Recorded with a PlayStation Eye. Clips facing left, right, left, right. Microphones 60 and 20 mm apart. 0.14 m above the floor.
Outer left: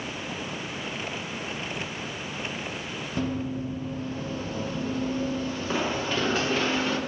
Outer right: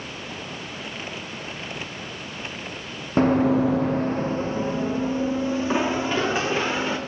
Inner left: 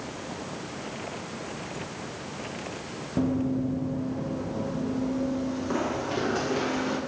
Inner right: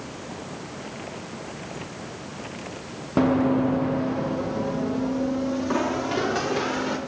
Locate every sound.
3.2 s running footsteps: 45° right (ahead or behind), 0.6 m; by 7.0 s 10° right (ahead or behind), 3.5 m